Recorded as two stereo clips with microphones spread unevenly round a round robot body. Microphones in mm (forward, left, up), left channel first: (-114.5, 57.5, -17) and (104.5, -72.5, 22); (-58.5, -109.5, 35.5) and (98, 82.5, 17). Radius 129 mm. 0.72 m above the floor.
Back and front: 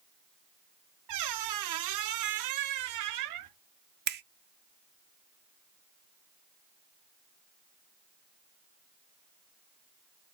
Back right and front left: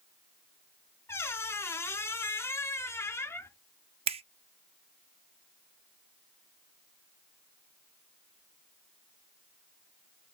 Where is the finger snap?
10° left, 0.5 m.